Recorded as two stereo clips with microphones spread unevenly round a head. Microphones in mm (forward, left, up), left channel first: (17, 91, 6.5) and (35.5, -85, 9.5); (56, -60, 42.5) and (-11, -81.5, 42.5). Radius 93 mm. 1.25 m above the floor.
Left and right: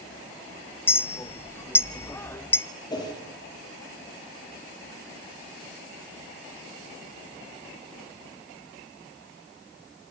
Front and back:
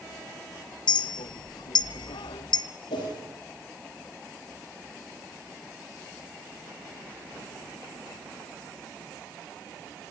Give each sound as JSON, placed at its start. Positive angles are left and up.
{"t": 0.9, "sound": "a clink", "azimuth_deg": 20, "distance_m": 0.8}
{"t": 2.9, "sound": "a whoosh", "azimuth_deg": 30, "distance_m": 5.0}